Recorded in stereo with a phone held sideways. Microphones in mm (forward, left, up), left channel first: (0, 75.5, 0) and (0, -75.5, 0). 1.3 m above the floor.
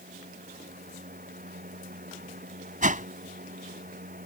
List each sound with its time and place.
0.0 s a fan: 70° right (ahead or behind)
2.8 s a whoosh: 60° right (ahead or behind)